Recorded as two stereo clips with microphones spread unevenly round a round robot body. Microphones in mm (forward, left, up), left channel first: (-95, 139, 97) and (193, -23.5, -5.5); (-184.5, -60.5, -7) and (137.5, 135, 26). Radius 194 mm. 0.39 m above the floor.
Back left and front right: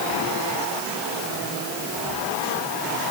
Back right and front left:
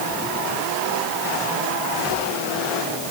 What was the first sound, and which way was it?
Only background noise.